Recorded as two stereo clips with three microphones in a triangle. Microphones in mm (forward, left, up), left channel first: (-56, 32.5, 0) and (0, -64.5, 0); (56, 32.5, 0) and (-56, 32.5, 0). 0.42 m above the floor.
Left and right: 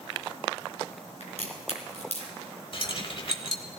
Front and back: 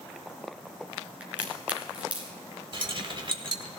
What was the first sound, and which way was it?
A crack, 100° left.